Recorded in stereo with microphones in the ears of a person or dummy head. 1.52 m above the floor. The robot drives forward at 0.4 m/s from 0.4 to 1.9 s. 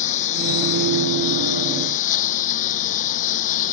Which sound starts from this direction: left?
A lawn mower, at 0.0 s.